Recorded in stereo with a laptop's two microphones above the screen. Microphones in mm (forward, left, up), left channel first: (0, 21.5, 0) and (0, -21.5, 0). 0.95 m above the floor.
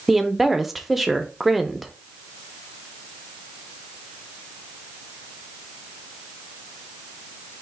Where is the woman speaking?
5° right (ahead or behind), 0.5 m.